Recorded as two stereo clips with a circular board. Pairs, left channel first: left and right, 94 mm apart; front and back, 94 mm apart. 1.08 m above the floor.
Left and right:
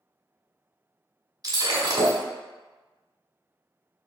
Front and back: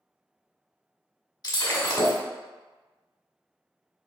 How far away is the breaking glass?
About 1.5 m.